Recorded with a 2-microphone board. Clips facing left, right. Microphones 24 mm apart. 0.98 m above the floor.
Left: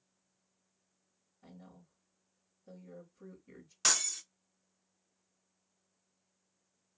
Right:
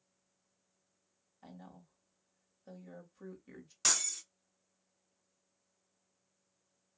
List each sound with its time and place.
1.4 s a woman speaking: 40° right (ahead or behind), 1.9 m
3.8 s breaking glass: 10° left (ahead or behind), 0.7 m